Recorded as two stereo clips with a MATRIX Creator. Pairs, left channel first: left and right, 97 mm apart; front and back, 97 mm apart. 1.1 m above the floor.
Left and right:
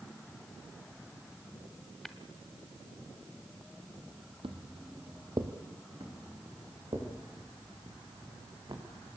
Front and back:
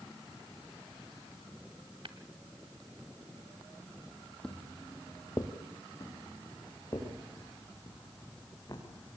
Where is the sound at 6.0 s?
50° right, 7.5 m.